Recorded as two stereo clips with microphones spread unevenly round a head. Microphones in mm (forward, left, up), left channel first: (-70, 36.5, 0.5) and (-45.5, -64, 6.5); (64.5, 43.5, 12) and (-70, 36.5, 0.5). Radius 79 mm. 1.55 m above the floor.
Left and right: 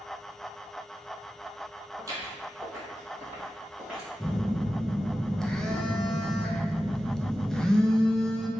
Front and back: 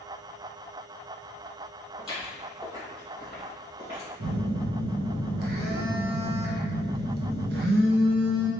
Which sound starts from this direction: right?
Footsteps, at 2.0 s.